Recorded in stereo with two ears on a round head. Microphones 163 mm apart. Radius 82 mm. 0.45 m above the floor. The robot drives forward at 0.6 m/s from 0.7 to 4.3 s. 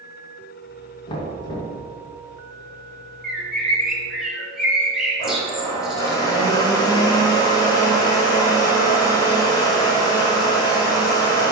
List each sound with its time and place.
1.1 s knocking: 30° left (ahead or behind), 2 m; by 1.8 s 25° left (ahead or behind), 2.5 m
3.2 s a bird: 5° right (ahead or behind), 1.4 m; by 6.2 s centre (ahead or behind), 2.0 m
5.2 s a blender: 25° left (ahead or behind), 2.0 m